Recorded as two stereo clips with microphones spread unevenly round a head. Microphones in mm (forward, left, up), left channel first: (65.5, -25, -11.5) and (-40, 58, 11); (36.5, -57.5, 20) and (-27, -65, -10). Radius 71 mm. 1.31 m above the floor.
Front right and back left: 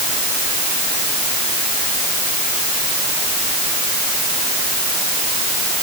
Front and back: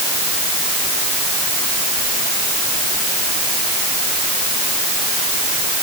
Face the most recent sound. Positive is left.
No sound to turn to.